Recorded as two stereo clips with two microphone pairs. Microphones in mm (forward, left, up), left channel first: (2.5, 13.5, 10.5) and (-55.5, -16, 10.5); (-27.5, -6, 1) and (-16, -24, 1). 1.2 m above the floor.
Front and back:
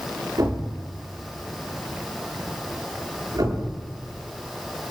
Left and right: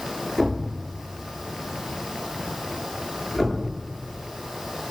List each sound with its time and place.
0.4 s a thud: 150° right, 10 m